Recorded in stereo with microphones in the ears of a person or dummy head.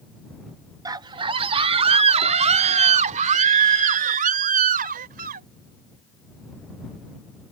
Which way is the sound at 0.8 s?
15° right (ahead or behind).